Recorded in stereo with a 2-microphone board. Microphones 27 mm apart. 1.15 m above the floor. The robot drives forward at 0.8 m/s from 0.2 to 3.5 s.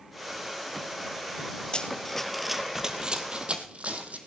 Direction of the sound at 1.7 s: 35° left (ahead or behind).